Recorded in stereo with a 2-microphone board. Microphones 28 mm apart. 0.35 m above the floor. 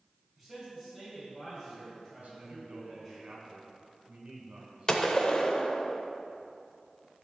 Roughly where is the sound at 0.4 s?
Centre.